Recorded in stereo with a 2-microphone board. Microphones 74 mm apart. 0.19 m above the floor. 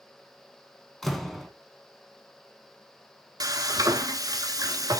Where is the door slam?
5° left (ahead or behind), 1.1 m.